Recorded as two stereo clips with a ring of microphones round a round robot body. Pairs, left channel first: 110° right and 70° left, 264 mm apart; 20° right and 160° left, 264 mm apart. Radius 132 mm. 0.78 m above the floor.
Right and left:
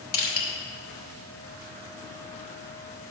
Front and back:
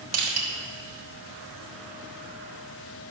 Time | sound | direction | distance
0.1 | crushing | 170° right | 1.8 m